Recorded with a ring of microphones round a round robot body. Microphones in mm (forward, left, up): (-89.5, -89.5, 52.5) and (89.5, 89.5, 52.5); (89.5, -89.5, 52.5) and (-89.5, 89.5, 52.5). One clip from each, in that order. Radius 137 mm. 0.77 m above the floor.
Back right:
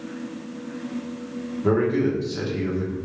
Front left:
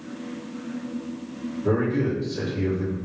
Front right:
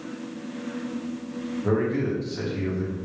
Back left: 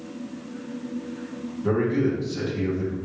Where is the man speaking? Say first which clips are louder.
Back right 3 dB, back left 2 dB; 130° right, 1.5 m.